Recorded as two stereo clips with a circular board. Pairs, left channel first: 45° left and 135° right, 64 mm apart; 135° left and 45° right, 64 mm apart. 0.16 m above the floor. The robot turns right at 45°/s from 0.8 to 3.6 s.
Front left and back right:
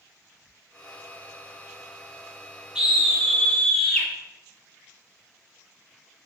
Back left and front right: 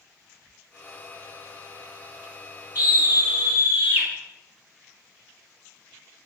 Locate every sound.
2.8 s a scream: 70° right, 1.4 m; by 4.1 s 30° right, 1.4 m